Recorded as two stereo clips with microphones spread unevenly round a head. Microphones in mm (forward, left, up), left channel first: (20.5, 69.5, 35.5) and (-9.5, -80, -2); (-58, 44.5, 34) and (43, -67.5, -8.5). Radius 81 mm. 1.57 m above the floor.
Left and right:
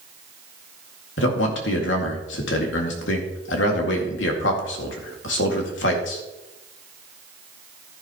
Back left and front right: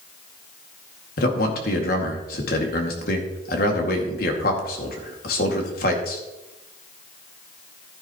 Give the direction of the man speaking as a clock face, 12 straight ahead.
9 o'clock.